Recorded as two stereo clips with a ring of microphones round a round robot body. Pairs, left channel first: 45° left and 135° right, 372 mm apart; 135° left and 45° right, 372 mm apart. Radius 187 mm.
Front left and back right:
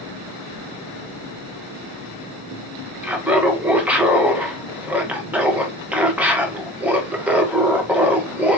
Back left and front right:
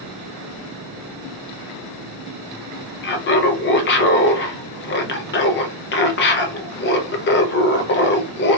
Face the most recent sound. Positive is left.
turn(degrees=145)